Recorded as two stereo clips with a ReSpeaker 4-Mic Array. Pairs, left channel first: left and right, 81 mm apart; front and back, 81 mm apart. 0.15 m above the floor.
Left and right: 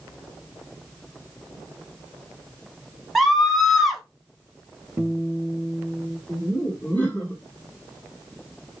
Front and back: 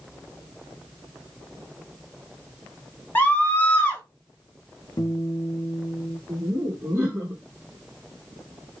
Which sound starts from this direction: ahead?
A scream, at 3.1 s.